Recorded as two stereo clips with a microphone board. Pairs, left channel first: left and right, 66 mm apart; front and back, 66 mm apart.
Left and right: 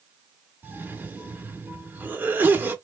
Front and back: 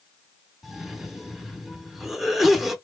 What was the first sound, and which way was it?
A cough, 95° right.